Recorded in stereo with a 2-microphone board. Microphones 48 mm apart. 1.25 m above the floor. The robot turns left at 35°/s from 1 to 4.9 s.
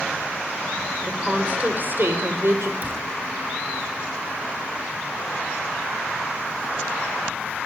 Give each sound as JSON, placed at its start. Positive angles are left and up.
{"t": 1.1, "sound": "a woman speaking", "azimuth_deg": -15, "distance_m": 5.0}
{"t": 2.8, "sound": "a cupboard door", "side_deg": -35, "distance_m": 8.5}